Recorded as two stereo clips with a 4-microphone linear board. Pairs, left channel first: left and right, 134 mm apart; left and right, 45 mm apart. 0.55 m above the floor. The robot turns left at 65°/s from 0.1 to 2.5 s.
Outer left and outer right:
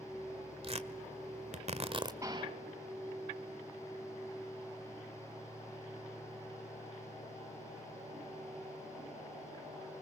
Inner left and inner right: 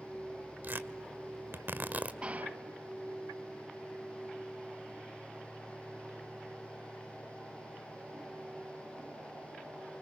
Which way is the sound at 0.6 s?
45° right (ahead or behind).